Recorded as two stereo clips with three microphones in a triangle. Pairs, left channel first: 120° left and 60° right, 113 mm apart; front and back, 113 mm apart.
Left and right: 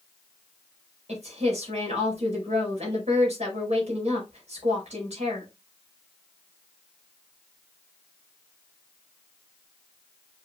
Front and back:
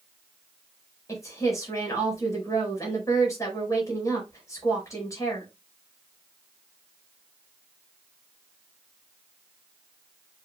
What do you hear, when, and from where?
1.1 s a woman speaking: 60° right, 5 m